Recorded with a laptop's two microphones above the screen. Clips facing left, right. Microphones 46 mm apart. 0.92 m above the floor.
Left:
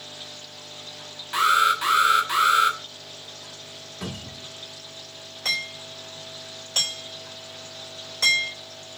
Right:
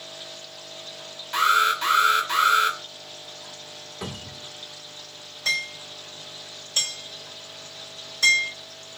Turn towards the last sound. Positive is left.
turn(degrees=80)